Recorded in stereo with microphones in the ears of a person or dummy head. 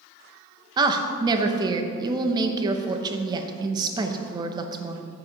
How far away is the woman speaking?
About 0.8 m.